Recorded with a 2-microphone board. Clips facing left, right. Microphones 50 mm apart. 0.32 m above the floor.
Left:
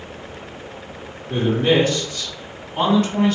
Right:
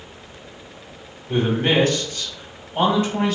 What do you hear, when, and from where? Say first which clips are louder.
1.3 s a man speaking: left 2 dB; 55° right (ahead or behind), 1.6 m; by 3.4 s 10° right (ahead or behind), 1.5 m